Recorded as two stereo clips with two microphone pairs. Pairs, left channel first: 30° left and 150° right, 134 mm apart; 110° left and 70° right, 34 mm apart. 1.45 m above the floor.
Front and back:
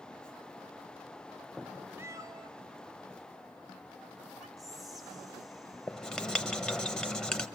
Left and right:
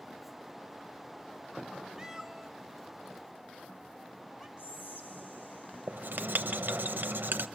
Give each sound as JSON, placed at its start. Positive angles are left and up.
{"t": 2.0, "sound": "a cat meowing", "azimuth_deg": -115, "distance_m": 0.8}
{"t": 4.6, "sound": "whispering", "azimuth_deg": 120, "distance_m": 1.6}
{"t": 5.9, "sound": "writing", "azimuth_deg": -60, "distance_m": 0.8}